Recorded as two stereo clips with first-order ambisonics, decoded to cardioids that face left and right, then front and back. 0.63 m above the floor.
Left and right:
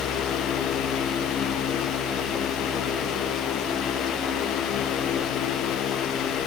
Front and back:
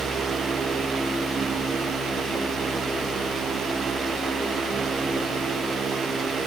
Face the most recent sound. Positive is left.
No sound to turn to.